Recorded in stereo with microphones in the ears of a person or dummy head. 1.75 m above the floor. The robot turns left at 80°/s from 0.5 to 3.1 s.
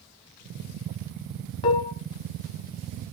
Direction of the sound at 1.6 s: 25° left (ahead or behind).